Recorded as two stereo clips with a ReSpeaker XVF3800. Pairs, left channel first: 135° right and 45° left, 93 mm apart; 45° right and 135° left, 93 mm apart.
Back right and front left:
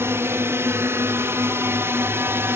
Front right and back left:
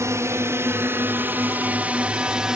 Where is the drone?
95° left; by 2.6 s 60° left.